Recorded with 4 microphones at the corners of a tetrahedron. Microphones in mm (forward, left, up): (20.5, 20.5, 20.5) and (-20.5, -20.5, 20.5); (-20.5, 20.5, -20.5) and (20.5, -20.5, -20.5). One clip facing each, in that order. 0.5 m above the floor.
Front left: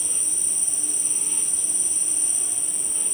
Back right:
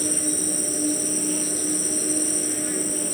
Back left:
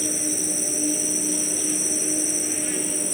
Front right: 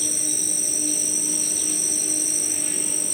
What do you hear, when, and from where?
0.0 s an insect: 160° right